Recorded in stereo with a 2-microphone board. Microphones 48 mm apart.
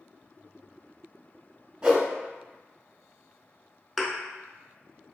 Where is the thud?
Centre (ahead or behind), 0.5 m.